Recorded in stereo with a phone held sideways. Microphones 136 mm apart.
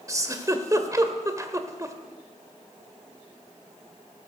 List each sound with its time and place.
0.1 s a giggle: 25° right (ahead or behind), 1.4 m